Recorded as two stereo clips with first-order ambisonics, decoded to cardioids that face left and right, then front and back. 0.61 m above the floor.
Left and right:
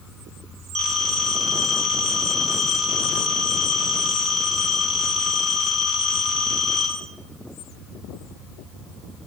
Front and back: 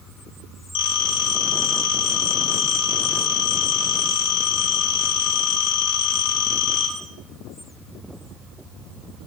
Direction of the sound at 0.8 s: 15° right.